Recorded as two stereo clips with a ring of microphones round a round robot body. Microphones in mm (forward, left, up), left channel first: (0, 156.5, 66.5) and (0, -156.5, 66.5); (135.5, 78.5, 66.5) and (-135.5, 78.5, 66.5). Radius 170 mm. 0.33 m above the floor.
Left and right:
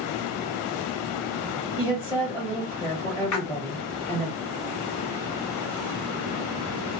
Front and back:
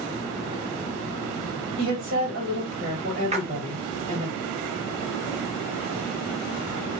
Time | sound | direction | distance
1.8 | a woman speaking | 165° left | 1.9 m
3.3 | a splash | 115° left | 0.9 m